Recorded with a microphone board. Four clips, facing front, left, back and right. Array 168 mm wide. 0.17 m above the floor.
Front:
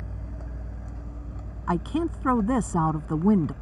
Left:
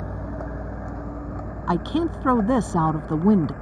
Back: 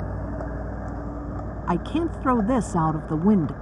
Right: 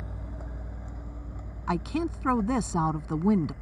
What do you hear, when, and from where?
0.0 s a vehicle: 140° left; by 3.6 s 130° left
1.7 s a woman speaking: 110° left